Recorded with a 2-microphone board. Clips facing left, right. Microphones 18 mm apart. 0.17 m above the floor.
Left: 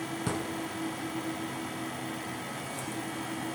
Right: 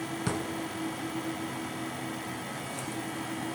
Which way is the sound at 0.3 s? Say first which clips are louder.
Right 1 dB; 20° right (ahead or behind).